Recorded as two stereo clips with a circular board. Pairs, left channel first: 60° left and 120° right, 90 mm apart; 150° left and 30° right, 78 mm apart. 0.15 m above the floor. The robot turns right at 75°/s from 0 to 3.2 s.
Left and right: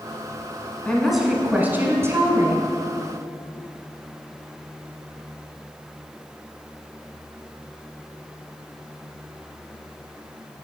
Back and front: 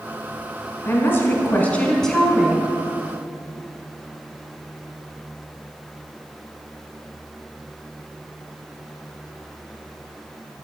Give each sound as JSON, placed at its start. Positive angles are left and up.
{"t": 0.8, "sound": "a woman speaking", "azimuth_deg": 135, "distance_m": 1.1}